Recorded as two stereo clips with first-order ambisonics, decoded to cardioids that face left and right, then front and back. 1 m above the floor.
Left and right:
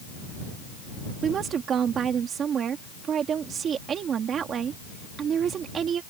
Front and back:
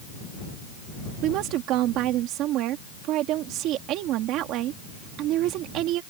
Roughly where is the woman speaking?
Behind right.